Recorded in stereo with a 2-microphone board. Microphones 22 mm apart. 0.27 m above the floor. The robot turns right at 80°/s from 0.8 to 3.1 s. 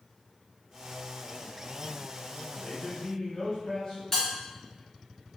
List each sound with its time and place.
2.5 s a man speaking: 80° left, 1.7 m; by 4.0 s 125° left, 1.7 m
4.1 s a bell: 20° left (ahead or behind), 1.9 m